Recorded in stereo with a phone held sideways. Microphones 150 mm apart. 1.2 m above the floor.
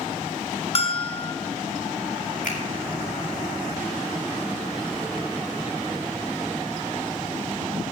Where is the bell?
40° left (ahead or behind), 1.0 m.